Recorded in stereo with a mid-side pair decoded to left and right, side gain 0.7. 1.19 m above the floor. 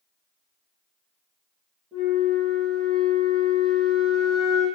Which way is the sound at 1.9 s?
25° right.